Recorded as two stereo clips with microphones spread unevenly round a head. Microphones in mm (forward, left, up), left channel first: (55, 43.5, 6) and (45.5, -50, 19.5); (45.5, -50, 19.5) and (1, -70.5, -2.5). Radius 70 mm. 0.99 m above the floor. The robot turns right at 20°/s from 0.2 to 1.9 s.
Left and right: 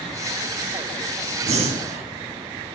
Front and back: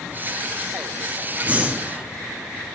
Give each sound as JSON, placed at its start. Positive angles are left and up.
{"t": 1.4, "sound": "breathing", "azimuth_deg": -95, "distance_m": 1.2}